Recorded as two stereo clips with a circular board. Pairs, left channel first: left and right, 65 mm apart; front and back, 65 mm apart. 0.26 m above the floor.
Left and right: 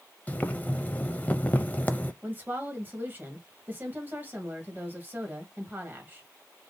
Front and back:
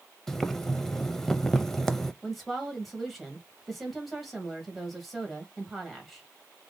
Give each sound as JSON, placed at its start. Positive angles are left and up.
{"t": 0.3, "sound": "boiling", "azimuth_deg": 75, "distance_m": 0.5}
{"t": 2.2, "sound": "a woman speaking", "azimuth_deg": -90, "distance_m": 1.4}